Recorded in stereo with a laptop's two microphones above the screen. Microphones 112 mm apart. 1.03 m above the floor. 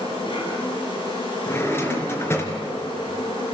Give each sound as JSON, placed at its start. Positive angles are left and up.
{"t": 0.0, "sound": "an insect", "side_deg": 45, "distance_m": 6.5}
{"t": 1.5, "sound": "a drawer", "side_deg": 20, "distance_m": 4.0}